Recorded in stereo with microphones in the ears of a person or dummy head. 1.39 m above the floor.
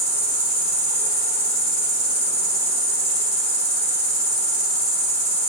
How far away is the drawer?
I don't hear a drawer.